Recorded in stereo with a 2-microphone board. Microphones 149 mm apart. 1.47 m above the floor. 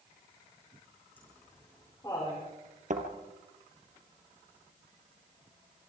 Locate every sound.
1.2 s laughter: 15° left (ahead or behind), 4 m; by 2.4 s 30° left (ahead or behind), 5 m
2.9 s a thud: 60° right (ahead or behind), 3 m